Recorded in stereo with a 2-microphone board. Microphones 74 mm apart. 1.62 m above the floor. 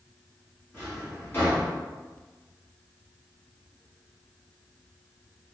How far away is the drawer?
About 1.8 m.